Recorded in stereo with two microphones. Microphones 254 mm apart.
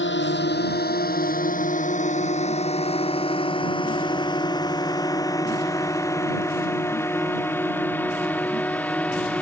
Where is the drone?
45° left (ahead or behind); by 9.4 s 5° left (ahead or behind).